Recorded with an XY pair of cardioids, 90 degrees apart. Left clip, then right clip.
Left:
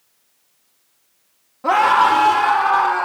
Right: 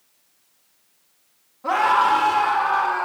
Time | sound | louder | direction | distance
1.6 | a scream | left 4 dB | 70° left | 0.8 m